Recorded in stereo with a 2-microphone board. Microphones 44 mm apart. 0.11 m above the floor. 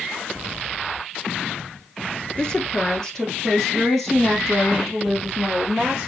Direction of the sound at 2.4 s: 25° left (ahead or behind).